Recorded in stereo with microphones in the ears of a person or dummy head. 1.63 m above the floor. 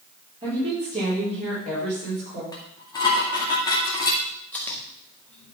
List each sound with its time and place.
0.4 s a woman speaking: 30° right (ahead or behind), 4 m; by 2.4 s 40° right (ahead or behind), 5.5 m
2.5 s dishes clattering: 20° left (ahead or behind), 2.0 m
4.5 s chewing: 10° left (ahead or behind), 2 m